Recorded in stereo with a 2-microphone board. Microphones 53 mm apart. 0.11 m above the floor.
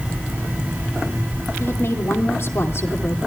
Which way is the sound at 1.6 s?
55° left (ahead or behind).